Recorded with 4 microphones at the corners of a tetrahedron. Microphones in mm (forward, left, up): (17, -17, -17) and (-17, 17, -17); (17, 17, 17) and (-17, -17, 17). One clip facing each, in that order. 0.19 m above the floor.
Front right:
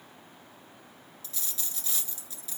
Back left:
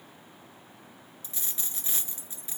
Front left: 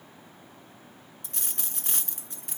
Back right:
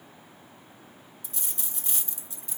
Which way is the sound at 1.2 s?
75° left.